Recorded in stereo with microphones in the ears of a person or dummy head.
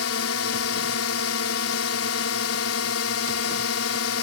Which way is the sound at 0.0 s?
80° left.